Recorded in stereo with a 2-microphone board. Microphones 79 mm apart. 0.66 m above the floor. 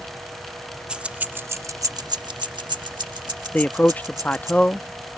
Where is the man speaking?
20° left (ahead or behind).